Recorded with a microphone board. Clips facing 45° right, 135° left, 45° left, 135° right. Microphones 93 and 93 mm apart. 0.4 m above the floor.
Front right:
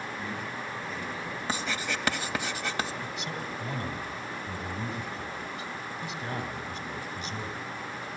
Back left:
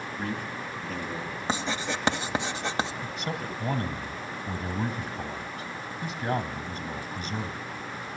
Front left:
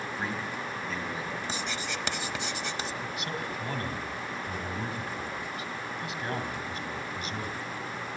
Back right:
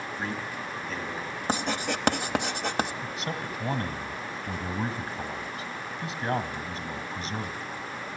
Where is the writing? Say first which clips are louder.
Back left 3 dB, back right 6 dB; 165° right, 1.1 m.